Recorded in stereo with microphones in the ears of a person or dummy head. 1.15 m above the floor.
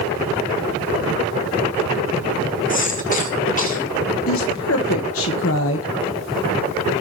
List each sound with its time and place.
2.7 s a cough: 40° left (ahead or behind), 1.8 m
4.3 s a woman speaking: 65° left (ahead or behind), 1.3 m